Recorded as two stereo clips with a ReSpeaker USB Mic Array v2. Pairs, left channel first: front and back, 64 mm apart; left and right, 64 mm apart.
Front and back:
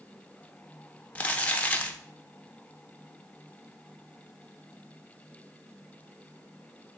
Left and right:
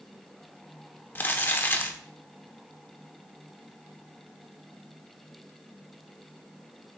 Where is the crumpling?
55° left, 0.7 m.